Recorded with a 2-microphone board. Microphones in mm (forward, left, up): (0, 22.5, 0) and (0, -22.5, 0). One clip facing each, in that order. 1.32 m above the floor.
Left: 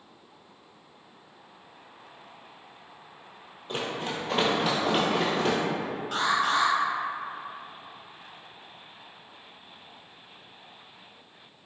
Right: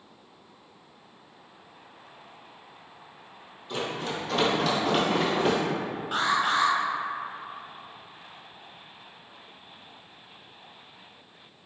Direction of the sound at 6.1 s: 15° right (ahead or behind).